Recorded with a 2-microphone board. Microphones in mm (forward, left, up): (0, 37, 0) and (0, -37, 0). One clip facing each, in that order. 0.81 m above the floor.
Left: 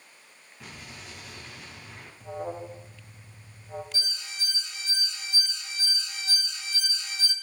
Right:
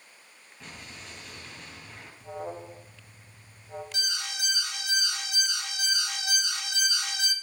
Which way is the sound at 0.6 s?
5° left (ahead or behind).